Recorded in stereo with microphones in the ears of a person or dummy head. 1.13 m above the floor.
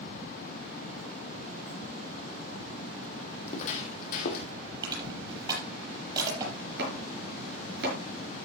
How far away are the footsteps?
About 2.5 m.